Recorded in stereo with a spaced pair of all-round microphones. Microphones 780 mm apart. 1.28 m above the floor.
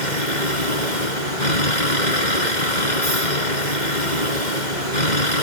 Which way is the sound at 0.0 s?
65° left (ahead or behind).